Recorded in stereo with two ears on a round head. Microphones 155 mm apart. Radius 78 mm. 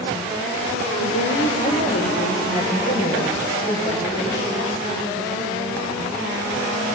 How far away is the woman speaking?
About 2 m.